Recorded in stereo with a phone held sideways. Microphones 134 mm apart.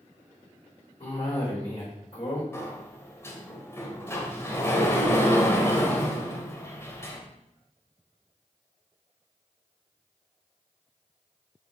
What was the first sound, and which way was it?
A cough, 45° left (ahead or behind).